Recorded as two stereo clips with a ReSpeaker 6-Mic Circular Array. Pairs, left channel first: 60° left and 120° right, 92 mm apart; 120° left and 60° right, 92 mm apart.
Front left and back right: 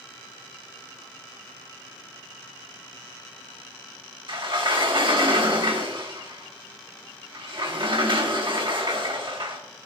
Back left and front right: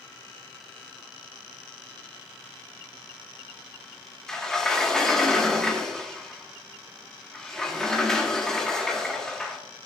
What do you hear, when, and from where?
4.3 s a sliding door: 155° right, 1.4 m